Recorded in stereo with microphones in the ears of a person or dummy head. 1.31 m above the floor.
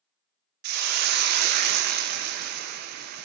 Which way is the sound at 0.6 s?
50° right (ahead or behind).